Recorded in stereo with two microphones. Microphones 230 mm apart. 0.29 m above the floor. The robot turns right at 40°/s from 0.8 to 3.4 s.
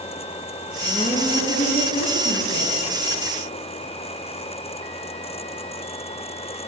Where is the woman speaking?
5° left, 5 m; by 2.8 s 85° left, 5 m.